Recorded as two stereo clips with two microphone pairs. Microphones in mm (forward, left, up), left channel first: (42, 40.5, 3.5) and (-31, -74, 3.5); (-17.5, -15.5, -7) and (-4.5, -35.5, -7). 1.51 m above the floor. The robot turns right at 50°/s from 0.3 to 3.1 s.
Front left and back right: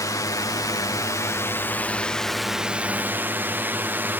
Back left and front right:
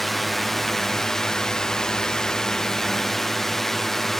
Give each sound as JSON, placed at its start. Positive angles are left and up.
{"t": 0.0, "sound": "a drone", "azimuth_deg": 45}